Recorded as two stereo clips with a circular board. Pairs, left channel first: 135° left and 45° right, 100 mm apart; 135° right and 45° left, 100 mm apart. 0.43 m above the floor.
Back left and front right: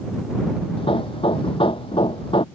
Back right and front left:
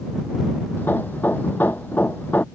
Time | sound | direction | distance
0.8 | hammering | 155° left | ?